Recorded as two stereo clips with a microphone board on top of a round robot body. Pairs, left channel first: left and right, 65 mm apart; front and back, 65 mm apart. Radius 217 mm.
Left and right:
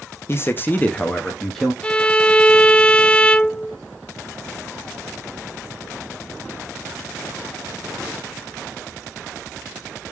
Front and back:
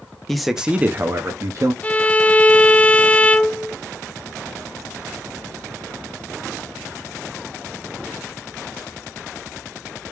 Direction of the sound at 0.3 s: 85° left.